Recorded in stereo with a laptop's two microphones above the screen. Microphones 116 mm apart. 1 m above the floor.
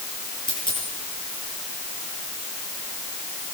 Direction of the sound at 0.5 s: 40° left (ahead or behind).